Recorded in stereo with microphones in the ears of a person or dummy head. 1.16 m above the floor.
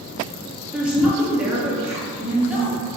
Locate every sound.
0.7 s a woman speaking: 5° right (ahead or behind), 1.0 m